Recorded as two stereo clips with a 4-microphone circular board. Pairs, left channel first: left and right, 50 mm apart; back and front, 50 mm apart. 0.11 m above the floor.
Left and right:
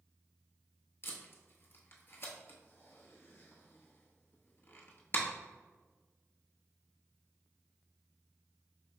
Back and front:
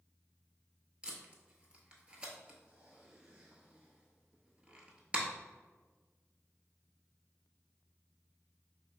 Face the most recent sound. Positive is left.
turn(degrees=65)